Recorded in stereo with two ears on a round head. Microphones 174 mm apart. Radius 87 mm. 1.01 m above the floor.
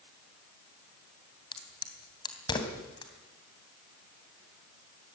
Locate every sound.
1.5 s a crack: 25° left (ahead or behind), 3 m